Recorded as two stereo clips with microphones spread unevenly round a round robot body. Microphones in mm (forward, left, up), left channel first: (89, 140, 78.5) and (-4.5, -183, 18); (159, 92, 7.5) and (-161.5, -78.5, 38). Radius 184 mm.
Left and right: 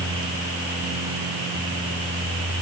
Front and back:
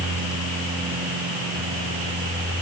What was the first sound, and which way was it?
Only background noise.